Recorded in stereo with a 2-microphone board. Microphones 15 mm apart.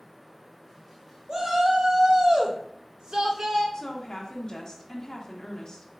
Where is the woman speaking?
35° left (ahead or behind), 0.9 m.